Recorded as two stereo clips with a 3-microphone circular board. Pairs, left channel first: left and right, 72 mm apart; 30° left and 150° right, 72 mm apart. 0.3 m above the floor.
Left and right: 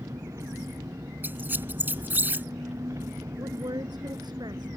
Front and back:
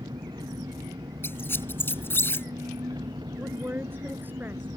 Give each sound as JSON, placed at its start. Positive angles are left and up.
{"t": 0.0, "sound": "an engine running", "azimuth_deg": -135}
{"t": 1.2, "sound": "a squeak", "azimuth_deg": -25}
{"t": 3.4, "sound": "a woman speaking", "azimuth_deg": -90}